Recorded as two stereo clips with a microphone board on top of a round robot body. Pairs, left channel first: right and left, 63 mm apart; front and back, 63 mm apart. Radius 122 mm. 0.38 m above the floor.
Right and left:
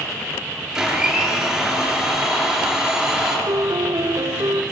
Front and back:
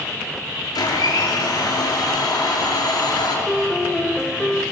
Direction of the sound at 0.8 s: 5° left.